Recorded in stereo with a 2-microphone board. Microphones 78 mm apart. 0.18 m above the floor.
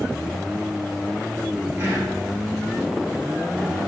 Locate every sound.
1.8 s whispering: 40° right (ahead or behind), 1.6 m